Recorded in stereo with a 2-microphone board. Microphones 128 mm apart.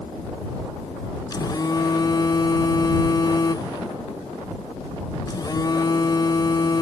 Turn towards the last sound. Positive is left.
turn(degrees=30)  # may be behind; listen again after turning